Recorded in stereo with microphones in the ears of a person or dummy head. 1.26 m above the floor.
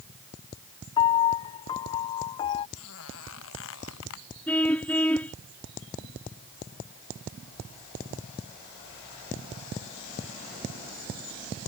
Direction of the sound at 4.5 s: 5° left (ahead or behind).